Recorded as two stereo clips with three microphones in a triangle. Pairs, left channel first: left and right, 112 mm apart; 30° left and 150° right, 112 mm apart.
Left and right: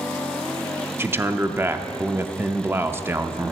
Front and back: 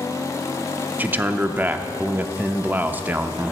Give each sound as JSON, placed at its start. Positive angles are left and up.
{"t": 1.0, "sound": "a man speaking", "azimuth_deg": -110, "distance_m": 0.6}